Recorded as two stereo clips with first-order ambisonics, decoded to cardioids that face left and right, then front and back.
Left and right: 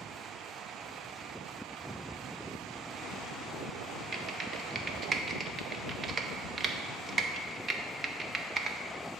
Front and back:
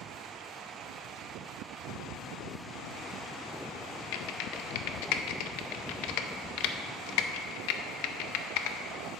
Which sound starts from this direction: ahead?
Typing on a keyboard, at 4.1 s.